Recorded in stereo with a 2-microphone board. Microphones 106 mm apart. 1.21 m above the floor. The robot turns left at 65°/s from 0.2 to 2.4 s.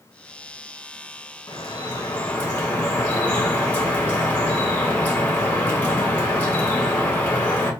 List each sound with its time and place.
1.5 s dripping: 90° left, 1.1 m; by 7.7 s 30° left, 1.1 m